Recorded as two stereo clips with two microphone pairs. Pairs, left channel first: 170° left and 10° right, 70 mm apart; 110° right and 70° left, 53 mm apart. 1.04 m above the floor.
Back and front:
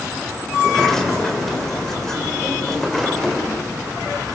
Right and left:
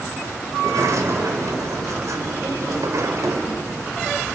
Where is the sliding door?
85° left, 3.5 m.